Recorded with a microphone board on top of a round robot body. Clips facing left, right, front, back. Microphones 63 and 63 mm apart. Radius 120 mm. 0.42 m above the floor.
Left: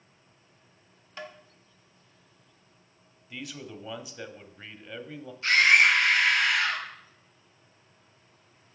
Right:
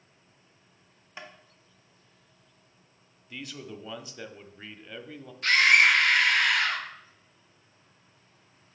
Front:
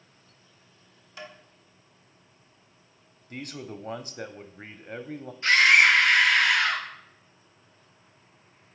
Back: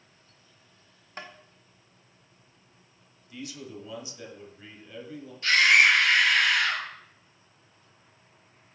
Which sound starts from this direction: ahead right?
A scream, at 5.4 s.